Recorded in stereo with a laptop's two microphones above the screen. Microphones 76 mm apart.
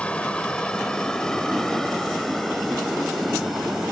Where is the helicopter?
15° left (ahead or behind); by 3.9 s 5° right (ahead or behind).